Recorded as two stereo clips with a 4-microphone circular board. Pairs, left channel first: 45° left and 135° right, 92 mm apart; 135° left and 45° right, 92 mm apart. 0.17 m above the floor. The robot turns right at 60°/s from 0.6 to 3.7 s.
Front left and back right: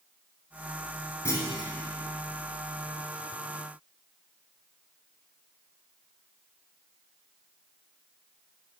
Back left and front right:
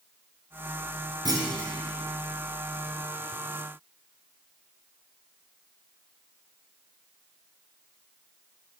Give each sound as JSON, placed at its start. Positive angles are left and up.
{"t": 1.2, "sound": "a clunk", "azimuth_deg": -10, "distance_m": 1.0}